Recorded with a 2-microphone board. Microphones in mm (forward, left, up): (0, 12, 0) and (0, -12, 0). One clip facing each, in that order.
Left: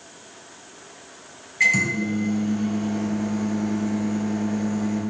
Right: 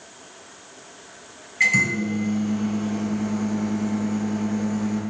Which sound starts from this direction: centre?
A microwave, at 1.6 s.